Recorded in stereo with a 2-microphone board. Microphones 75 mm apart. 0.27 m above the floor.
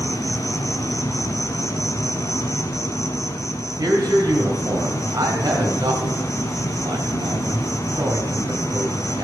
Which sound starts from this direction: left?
An insect, at 0.0 s.